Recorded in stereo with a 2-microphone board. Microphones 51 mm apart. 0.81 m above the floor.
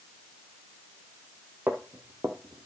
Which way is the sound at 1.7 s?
40° right (ahead or behind).